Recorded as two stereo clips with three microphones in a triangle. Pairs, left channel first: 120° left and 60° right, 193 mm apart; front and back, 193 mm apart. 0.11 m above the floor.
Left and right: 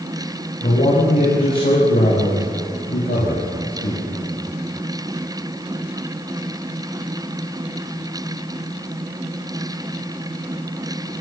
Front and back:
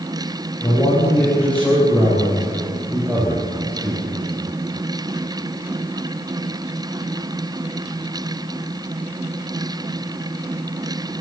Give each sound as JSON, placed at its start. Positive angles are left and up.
{"t": 0.6, "sound": "a man speaking", "azimuth_deg": 70, "distance_m": 8.5}